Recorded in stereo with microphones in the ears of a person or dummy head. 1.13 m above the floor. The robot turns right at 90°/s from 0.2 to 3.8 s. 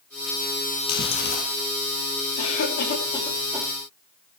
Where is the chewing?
55° left, 5 m; by 1.4 s 105° left, 5 m.